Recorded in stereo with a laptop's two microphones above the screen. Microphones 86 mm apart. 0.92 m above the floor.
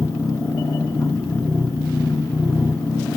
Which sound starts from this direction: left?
A machine running, at 0.0 s.